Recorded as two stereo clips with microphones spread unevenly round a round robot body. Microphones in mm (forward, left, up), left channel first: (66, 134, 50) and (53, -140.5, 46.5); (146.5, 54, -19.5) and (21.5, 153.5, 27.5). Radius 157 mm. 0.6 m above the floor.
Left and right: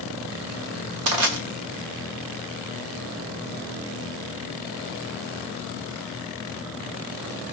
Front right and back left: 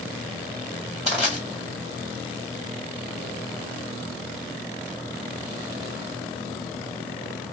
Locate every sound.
1.1 s crushing: 95° right, 1.4 m